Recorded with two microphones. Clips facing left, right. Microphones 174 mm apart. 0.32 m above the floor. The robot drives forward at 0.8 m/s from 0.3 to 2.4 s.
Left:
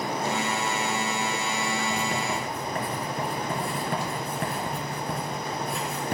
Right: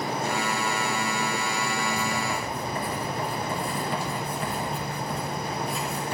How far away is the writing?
About 3 m.